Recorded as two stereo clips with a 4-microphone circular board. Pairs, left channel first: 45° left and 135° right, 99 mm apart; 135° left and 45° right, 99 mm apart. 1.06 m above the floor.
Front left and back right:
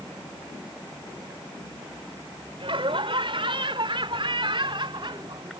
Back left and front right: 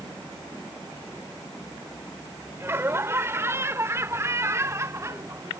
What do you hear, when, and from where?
2.6 s laughter: 110° right; by 5.6 s 100° right